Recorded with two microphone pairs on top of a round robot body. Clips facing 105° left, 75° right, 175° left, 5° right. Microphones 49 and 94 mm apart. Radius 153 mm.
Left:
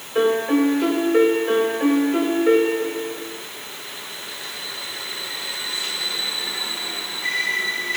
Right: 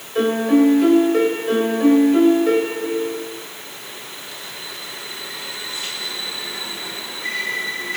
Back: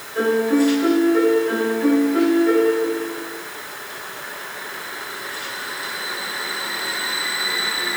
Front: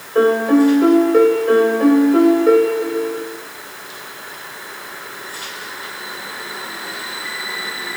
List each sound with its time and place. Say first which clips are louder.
0.1 s a piano: right 2 dB, front 5 dB; 35° left, 2.5 m